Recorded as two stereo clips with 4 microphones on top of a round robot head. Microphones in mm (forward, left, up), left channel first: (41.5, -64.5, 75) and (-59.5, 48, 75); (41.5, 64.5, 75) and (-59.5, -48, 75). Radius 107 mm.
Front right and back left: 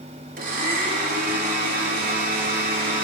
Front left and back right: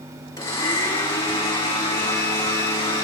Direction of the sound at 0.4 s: 115° left.